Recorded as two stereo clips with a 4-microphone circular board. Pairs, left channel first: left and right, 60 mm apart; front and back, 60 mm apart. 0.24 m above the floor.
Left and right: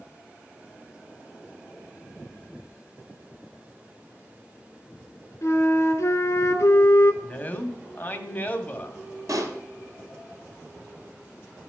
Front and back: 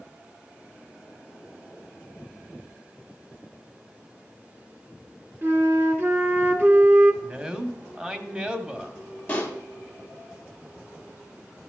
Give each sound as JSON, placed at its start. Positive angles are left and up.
{"t": 5.4, "sound": "a flute", "azimuth_deg": 130, "distance_m": 1.2}
{"t": 7.2, "sound": "a man speaking", "azimuth_deg": 120, "distance_m": 1.0}
{"t": 9.3, "sound": "a pop", "azimuth_deg": -65, "distance_m": 1.7}